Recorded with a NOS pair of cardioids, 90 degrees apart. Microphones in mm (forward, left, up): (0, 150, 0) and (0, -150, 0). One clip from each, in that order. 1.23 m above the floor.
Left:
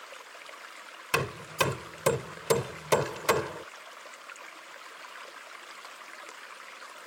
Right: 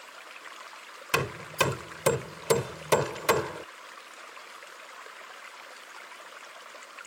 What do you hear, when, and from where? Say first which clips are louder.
1.1 s hammering: right 1 dB; 5° right